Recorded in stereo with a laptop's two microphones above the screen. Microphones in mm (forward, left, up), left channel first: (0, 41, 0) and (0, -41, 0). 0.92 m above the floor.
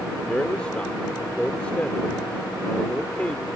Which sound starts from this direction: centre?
A man speaking, at 0.3 s.